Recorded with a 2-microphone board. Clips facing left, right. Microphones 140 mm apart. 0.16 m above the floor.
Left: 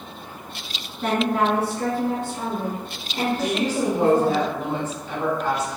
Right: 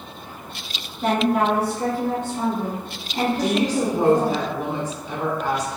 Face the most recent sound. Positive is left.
turn(degrees=-15)  # may be behind; listen again after turning